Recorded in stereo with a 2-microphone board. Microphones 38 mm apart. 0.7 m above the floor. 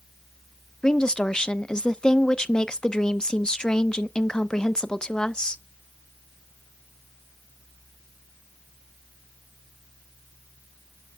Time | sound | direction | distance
0.8 | a woman speaking | 20° left (ahead or behind) | 0.5 m